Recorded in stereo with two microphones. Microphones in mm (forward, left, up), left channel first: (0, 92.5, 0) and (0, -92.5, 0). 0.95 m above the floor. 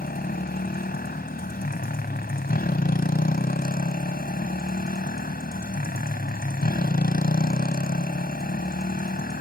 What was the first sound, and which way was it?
A motorcycle, 55° left (ahead or behind).